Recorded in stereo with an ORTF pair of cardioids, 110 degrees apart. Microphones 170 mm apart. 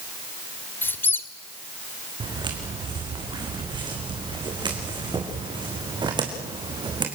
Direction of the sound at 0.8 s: 10° left.